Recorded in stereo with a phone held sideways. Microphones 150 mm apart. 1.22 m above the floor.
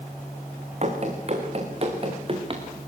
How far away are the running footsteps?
About 4 m.